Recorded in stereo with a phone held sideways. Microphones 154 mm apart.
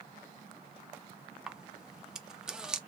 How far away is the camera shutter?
About 0.5 m.